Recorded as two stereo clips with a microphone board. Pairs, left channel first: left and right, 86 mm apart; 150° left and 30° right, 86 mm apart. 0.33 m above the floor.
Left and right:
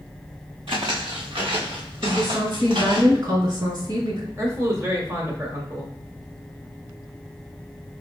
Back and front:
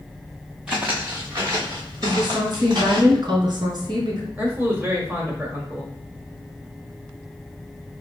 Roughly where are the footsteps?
Right.